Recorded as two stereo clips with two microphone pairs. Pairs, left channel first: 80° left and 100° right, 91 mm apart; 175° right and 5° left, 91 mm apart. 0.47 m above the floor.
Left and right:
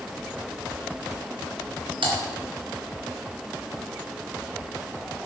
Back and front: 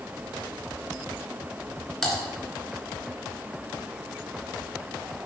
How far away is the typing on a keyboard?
About 3 m.